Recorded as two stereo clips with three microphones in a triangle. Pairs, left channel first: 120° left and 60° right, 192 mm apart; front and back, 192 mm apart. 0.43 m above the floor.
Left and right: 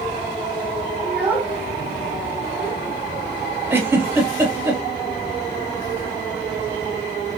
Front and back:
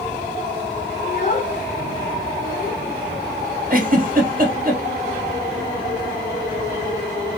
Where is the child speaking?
20° left, 0.9 m.